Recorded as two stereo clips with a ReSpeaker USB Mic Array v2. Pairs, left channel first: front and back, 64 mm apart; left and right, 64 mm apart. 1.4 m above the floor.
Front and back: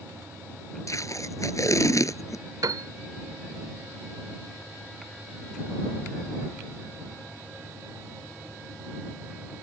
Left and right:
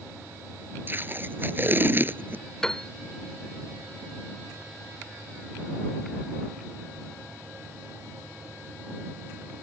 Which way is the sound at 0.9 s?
35° right.